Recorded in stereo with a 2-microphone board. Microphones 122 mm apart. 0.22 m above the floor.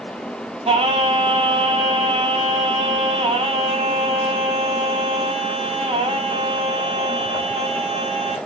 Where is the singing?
50° right (ahead or behind), 0.7 m.